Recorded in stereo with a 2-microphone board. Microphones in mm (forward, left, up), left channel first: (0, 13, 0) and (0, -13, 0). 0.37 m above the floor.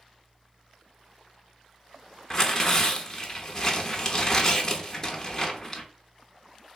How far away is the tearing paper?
About 0.6 m.